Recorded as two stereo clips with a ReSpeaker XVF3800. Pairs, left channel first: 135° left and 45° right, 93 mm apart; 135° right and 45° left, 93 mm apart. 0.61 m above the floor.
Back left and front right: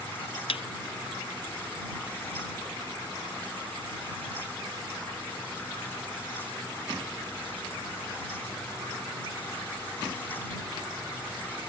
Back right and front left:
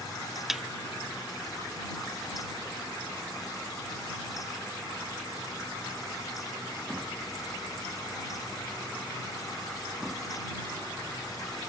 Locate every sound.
0.5 s a thud: 130° left